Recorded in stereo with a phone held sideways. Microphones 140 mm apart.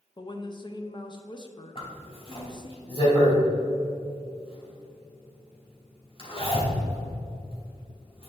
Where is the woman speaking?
35° left (ahead or behind), 0.6 m.